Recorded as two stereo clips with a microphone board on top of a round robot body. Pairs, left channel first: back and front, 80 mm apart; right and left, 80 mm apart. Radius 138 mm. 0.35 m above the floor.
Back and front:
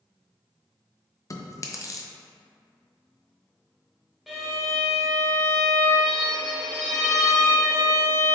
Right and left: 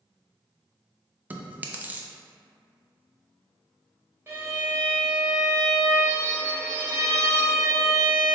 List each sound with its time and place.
1.3 s chewing: 150° left, 0.6 m
4.3 s a violin: 85° left, 1.4 m